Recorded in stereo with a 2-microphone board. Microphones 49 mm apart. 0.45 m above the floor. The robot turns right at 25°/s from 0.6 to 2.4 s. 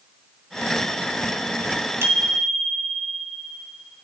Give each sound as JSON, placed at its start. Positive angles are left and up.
{"t": 2.0, "sound": "a bicycle bell", "side_deg": -60, "distance_m": 3.0}